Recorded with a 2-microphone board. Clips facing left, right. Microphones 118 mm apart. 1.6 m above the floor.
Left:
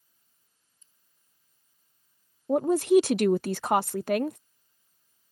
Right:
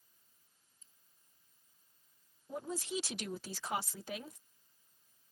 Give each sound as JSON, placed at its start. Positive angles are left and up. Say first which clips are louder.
{"t": 0.8, "sound": "scissors", "louder": "even", "side_deg": -40}
{"t": 2.5, "sound": "a woman speaking", "louder": "left 20 dB", "side_deg": 65}